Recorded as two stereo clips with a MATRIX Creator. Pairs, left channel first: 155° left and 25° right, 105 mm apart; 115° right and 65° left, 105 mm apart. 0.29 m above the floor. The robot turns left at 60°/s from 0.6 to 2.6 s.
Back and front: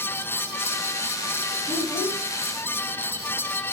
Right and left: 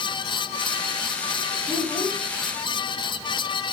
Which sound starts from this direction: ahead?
A child speaking, at 1.7 s.